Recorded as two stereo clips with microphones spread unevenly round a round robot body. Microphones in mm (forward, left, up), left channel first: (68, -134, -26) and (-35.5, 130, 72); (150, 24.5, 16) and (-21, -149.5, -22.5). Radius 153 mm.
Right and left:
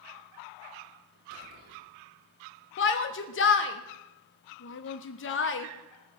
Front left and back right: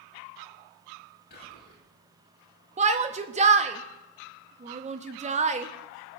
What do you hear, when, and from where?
1.3 s whispering: 110° left, 4.5 m
2.8 s a shout: 85° right, 1.0 m